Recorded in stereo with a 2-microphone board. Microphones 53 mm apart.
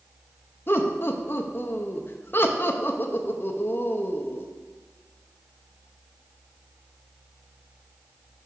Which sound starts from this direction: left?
Laughter, at 0.7 s.